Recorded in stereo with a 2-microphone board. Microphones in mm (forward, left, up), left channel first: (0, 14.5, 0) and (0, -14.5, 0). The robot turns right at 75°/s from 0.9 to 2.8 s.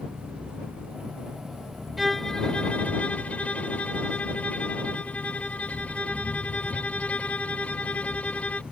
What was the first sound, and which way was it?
An engine running, 60° right.